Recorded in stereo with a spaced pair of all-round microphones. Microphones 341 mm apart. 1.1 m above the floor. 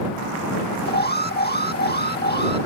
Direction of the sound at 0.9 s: 30° left (ahead or behind).